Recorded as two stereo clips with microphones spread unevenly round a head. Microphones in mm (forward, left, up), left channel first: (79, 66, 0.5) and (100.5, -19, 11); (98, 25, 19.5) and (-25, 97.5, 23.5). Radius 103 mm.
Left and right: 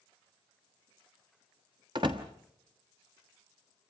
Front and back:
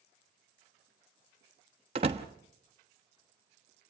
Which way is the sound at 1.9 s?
145° right.